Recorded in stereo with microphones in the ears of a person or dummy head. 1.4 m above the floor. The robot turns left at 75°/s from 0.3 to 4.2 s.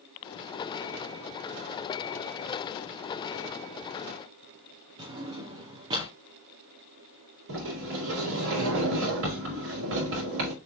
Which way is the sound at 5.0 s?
20° right (ahead or behind).